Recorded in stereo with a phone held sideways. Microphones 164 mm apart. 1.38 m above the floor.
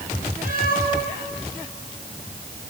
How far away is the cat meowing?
About 5 m.